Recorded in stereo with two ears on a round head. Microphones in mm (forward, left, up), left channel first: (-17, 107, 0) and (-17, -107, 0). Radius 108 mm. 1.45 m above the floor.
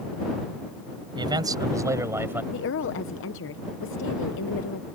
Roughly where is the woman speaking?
Left.